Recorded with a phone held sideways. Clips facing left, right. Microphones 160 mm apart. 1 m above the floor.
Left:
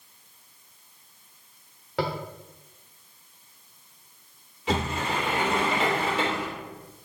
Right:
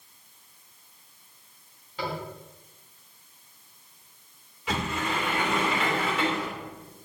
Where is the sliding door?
30° left (ahead or behind), 2.5 m.